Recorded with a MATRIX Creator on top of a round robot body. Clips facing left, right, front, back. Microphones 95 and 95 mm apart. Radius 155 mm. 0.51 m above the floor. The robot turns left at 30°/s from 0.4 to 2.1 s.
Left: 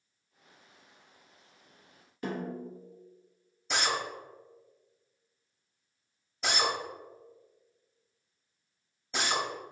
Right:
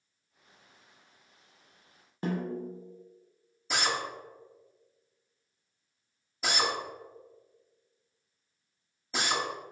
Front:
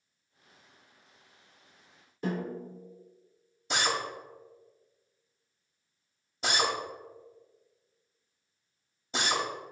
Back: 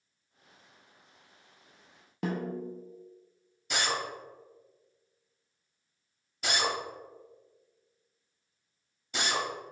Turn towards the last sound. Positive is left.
turn(degrees=-10)